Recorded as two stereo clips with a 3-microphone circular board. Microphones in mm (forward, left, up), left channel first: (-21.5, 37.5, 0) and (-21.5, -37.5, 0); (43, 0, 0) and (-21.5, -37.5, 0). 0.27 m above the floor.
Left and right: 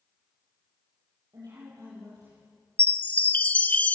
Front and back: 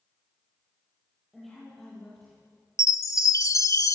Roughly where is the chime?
Ahead left.